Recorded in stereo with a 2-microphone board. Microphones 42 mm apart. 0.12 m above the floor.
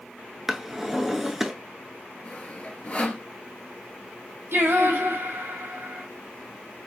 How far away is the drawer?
About 0.5 m.